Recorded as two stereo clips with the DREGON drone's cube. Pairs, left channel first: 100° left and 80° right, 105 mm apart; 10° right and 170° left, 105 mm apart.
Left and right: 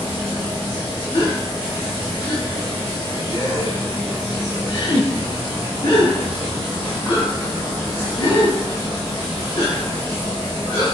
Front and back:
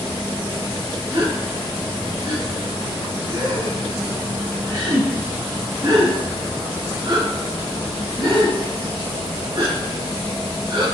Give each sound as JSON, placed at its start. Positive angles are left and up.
{"t": 1.1, "sound": "a gasp", "azimuth_deg": 140, "distance_m": 1.9}